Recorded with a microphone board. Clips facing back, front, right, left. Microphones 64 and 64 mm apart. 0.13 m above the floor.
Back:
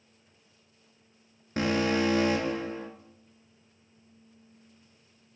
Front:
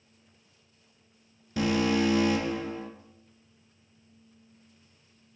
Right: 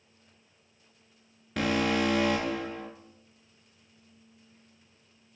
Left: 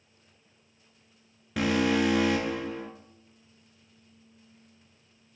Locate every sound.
1.6 s an alarm: 175° left, 1.0 m